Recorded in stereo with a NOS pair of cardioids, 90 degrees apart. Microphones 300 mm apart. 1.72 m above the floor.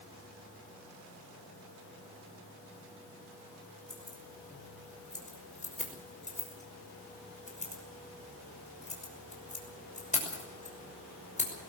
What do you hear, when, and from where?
3.9 s keys jangling: 25° left, 6 m